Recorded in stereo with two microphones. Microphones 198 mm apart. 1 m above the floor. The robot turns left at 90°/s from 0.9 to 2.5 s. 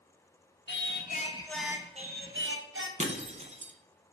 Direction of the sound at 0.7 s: 65° left.